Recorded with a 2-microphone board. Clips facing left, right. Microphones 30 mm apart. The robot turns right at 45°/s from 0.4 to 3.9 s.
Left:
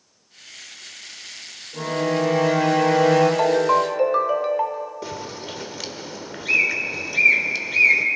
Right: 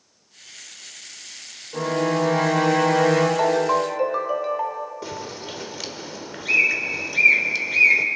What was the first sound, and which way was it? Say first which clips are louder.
A violin: right 1 dB; 85° right.